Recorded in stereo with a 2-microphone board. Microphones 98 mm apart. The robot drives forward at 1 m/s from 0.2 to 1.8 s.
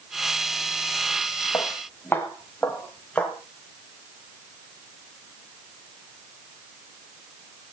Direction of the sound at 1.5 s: 25° left (ahead or behind).